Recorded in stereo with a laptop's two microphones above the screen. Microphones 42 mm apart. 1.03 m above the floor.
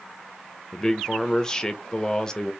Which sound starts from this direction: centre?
A man speaking, at 0.7 s.